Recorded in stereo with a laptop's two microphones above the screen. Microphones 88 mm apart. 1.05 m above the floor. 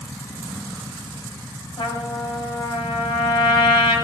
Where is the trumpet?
80° left, 3 m.